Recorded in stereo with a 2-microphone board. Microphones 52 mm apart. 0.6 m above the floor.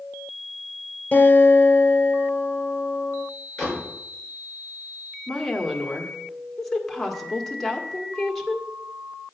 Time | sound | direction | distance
1.1 | a guitar | 35° left (ahead or behind) | 2.5 m
3.6 | a door slam | 5° left (ahead or behind) | 6.5 m
5.3 | a woman speaking | 5° left (ahead or behind) | 1.6 m